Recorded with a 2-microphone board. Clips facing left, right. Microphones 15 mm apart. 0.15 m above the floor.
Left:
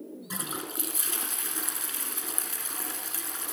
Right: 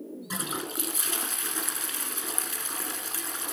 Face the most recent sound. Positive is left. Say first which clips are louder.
# right 3 dB
turn(degrees=-15)  # may be behind; listen again after turning